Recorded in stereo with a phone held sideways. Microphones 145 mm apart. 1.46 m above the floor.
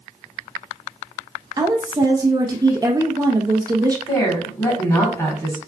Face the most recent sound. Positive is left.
turn(degrees=25)  # may be behind; listen again after turning